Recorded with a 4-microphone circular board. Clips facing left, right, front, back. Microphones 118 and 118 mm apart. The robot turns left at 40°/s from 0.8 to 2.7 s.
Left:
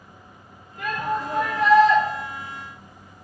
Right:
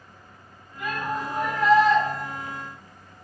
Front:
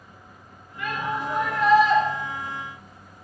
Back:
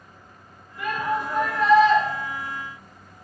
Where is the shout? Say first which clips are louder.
Left 3 dB, back 3 dB; 100° left, 5.5 m; by 2.0 s 55° left, 5.5 m.